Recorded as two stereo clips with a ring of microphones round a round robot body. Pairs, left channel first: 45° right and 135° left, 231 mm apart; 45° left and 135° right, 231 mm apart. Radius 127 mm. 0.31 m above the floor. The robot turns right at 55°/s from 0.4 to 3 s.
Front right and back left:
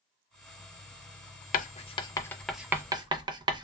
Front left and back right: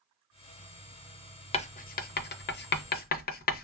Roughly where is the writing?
Ahead.